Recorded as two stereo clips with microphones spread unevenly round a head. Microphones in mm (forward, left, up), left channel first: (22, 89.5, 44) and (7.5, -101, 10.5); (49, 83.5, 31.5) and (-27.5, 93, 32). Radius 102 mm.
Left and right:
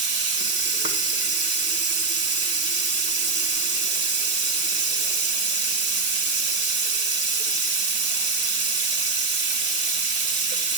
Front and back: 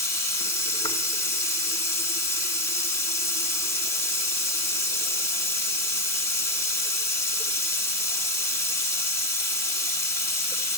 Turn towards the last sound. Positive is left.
turn(degrees=-60)